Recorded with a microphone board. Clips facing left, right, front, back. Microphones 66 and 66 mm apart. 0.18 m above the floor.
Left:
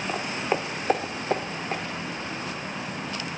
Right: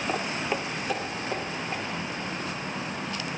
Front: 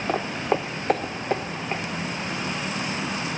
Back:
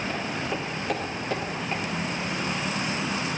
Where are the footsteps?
5° right, 0.7 m; by 1.8 s 60° left, 1.7 m.